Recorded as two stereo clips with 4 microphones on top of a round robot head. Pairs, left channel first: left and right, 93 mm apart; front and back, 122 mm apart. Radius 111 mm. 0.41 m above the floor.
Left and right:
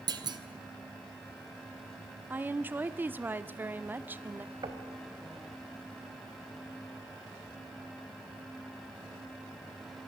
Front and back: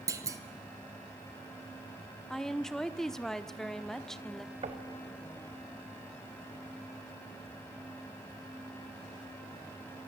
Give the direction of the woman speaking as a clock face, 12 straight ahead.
3 o'clock.